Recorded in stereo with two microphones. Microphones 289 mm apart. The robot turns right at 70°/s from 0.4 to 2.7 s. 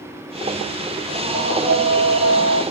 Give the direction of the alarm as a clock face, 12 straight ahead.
12 o'clock.